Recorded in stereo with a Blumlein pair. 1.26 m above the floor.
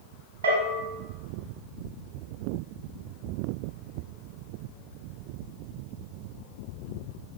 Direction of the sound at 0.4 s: 70° right.